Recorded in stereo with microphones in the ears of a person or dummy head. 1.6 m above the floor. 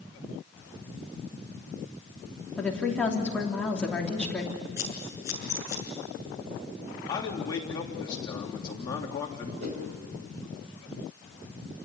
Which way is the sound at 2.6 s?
5° left (ahead or behind).